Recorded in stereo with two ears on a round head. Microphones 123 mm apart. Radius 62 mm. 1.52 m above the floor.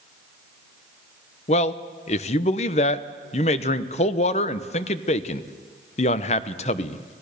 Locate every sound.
1.5 s a man speaking: 50° left (ahead or behind), 1.0 m